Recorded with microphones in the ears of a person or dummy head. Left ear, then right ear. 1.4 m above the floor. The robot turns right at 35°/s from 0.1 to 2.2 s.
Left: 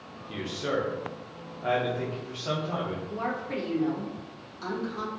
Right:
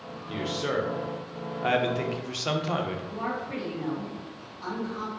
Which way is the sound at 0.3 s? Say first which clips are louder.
Right 1 dB; 175° right.